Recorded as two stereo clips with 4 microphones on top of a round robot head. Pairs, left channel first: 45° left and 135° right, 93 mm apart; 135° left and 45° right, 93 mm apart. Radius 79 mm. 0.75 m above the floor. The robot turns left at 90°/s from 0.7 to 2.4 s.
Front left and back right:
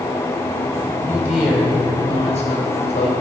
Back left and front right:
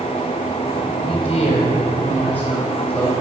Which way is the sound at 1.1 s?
175° left.